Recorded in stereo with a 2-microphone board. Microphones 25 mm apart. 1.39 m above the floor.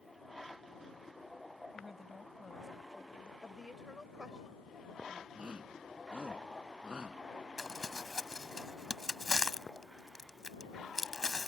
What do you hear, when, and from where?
1.7 s a woman speaking: 5° right (ahead or behind)
3.4 s a woman speaking: 25° right (ahead or behind)
5.3 s a shout: 45° right (ahead or behind)
7.6 s crumpling: 20° left (ahead or behind)